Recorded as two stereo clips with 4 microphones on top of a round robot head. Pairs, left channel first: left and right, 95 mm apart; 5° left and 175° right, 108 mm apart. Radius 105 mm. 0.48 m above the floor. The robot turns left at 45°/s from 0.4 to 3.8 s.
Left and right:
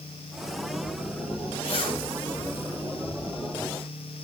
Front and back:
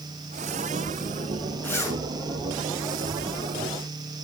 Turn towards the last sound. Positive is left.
turn(degrees=-20)